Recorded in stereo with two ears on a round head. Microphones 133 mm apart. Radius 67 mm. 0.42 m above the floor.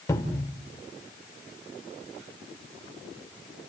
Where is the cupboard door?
20° left (ahead or behind), 1.6 m.